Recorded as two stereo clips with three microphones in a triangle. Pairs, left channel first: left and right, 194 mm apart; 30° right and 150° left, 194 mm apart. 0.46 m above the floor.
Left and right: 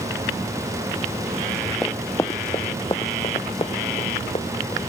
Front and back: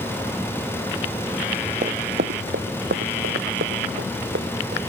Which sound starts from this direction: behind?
Running footsteps, at 1.8 s.